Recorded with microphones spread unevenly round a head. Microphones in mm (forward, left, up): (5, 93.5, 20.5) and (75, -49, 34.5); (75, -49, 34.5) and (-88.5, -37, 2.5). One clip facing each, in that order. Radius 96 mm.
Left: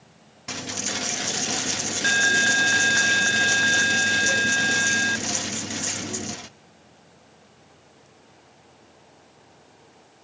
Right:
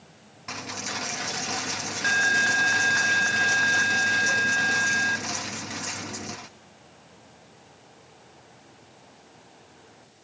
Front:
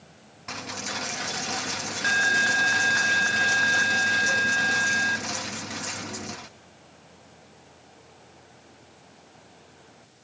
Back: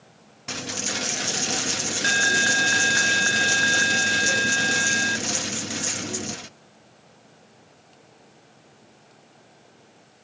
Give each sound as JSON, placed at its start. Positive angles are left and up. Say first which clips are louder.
{"t": 0.5, "sound": "a dropped coin", "louder": "left 3 dB, back 4 dB", "azimuth_deg": 135, "distance_m": 0.6}